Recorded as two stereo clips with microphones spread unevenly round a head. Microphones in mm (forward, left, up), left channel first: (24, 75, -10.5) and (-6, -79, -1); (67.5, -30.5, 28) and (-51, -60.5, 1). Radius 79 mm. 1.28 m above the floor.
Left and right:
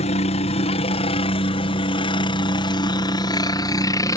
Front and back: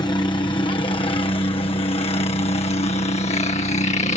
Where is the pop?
No pop in this recording.